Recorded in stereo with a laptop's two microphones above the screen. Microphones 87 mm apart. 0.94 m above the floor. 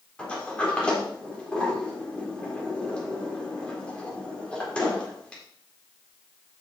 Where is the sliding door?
10° left (ahead or behind), 2 m.